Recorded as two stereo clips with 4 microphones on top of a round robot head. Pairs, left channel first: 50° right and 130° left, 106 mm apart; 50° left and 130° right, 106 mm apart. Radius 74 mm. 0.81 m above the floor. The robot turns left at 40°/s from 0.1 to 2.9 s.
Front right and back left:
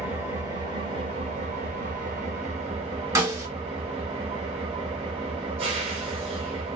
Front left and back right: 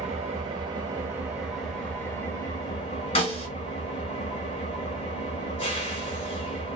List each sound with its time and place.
0.0 s an engine running: 160° right, 0.9 m; by 6.8 s 90° left, 0.9 m
3.1 s a snare drum: 70° left, 1.7 m